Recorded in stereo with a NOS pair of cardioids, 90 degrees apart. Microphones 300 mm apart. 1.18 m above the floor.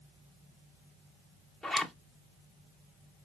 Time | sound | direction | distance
1.6 | a zipper | straight ahead | 0.5 m